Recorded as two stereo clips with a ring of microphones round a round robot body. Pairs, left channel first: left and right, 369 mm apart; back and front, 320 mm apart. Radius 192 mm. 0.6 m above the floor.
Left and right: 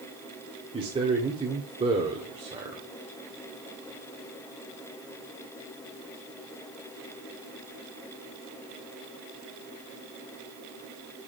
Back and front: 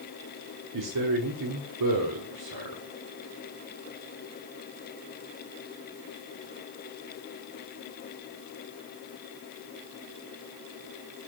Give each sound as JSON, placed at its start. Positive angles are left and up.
{"t": 0.7, "sound": "a man speaking", "azimuth_deg": -15, "distance_m": 1.2}